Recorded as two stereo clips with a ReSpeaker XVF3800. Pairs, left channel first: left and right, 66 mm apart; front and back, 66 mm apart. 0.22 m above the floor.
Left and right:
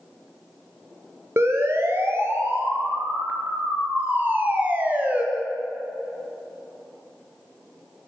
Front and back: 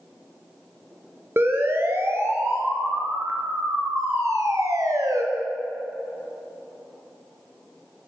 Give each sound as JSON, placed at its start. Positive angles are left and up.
{"t": 1.4, "sound": "a siren", "azimuth_deg": -130, "distance_m": 4.5}